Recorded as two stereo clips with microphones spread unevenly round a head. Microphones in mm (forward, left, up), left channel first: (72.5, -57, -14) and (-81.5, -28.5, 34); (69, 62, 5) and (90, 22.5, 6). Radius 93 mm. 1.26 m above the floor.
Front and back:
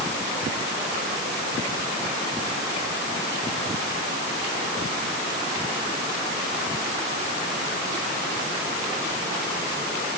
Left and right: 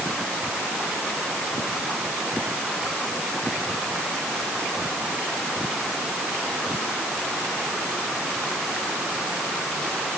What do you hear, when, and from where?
Only background noise.